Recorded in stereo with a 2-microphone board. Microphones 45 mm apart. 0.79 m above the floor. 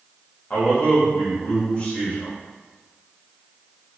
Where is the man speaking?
30° left (ahead or behind), 1.1 m.